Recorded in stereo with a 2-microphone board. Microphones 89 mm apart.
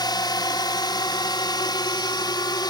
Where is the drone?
45° left (ahead or behind); by 2.7 s 50° left (ahead or behind).